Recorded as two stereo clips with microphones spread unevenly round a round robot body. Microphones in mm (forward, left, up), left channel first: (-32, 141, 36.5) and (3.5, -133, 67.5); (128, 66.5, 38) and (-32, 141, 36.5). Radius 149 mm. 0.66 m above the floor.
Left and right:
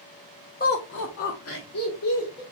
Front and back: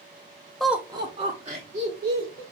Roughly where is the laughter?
Ahead left.